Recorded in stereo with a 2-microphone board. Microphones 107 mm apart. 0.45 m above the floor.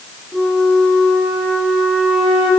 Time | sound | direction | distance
0.3 | a flute | 5° right (ahead or behind) | 2.5 m